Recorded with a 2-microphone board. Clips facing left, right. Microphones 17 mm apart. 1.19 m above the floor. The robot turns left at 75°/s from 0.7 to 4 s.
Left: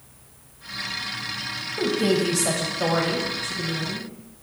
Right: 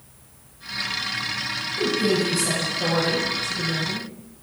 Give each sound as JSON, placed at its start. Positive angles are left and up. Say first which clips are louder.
{"t": 1.8, "sound": "a woman speaking", "louder": "even", "azimuth_deg": 130, "distance_m": 0.6}